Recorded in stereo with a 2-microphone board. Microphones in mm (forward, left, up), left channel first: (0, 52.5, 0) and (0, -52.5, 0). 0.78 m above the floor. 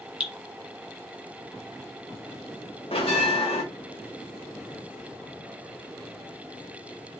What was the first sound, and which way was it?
Dripping, 10° right (ahead or behind).